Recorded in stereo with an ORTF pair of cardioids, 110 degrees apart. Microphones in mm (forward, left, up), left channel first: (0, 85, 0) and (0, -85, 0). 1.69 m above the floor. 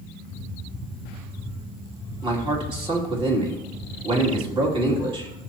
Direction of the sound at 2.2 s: 30° right.